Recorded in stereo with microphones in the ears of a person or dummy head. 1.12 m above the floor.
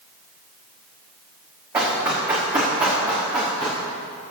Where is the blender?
No blender in this recording.